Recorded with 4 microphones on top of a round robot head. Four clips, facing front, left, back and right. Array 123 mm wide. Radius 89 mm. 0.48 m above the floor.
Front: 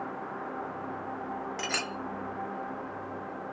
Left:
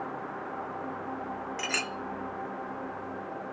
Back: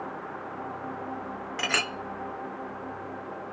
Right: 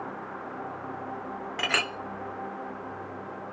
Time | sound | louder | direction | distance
1.6 | a clink | right 8 dB, back 4 dB | 120° right | 0.7 m